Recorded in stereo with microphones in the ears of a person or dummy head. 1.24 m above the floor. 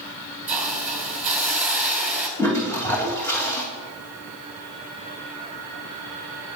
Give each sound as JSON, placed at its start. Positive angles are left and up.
{"t": 0.5, "sound": "a hiss", "side_deg": -5, "distance_m": 1.7}
{"t": 2.4, "sound": "a toilet flushing", "side_deg": 15, "distance_m": 1.8}